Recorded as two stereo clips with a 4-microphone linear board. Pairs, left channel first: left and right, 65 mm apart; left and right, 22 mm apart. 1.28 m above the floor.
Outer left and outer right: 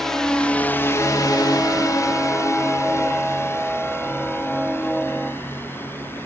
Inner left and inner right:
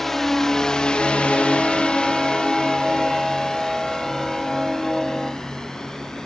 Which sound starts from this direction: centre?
A drone, at 0.0 s.